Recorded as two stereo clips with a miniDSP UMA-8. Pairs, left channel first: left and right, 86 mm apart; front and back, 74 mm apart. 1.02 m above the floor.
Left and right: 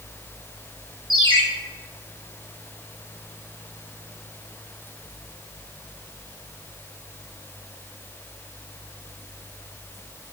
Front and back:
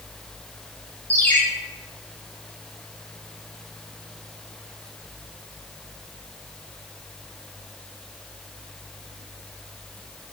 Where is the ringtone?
65° right, 1.3 m.